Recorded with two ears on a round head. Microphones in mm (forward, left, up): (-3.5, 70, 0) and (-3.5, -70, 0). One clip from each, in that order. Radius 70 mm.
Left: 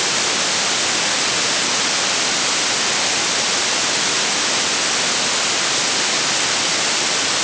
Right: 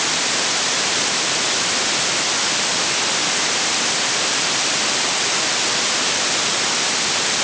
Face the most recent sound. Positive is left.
No sound to turn to.